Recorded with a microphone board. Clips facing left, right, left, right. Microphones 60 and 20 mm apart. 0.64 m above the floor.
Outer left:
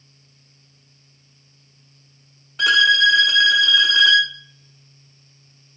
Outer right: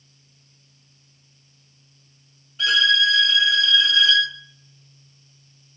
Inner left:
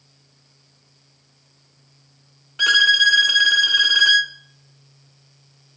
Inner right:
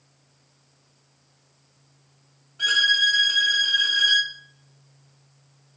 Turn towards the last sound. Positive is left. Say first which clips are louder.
# outer left 4 dB, inner left 5 dB
turn(degrees=70)  # may be behind; listen again after turning